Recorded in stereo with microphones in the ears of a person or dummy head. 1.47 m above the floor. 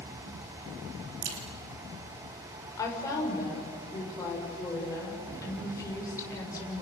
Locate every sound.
1.2 s a crack: 65° right (ahead or behind), 5.5 m
2.8 s a woman speaking: 20° left (ahead or behind), 7 m